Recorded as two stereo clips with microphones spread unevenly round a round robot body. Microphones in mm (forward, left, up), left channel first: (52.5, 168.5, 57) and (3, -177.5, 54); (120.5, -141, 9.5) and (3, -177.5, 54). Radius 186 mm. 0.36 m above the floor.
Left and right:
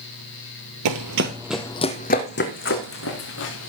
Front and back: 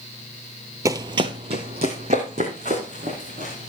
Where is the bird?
No bird in this recording.